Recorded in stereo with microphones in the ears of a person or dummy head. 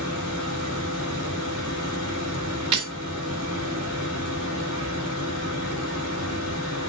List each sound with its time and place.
0.0 s a machine running: 80° left, 1.9 m
2.7 s breaking glass: 30° right (ahead or behind), 2.0 m